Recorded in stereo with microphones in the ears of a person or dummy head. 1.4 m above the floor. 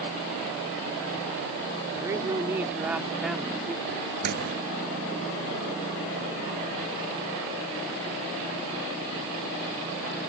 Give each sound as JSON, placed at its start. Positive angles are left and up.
{"t": 1.9, "sound": "a woman speaking", "side_deg": -20}
{"t": 4.2, "sound": "a microwave", "side_deg": -50}